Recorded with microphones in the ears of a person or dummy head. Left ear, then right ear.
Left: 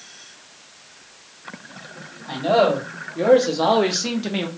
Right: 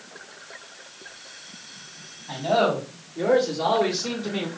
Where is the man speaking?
75° left (ahead or behind), 1.8 m; by 4.5 s 50° left (ahead or behind), 0.6 m.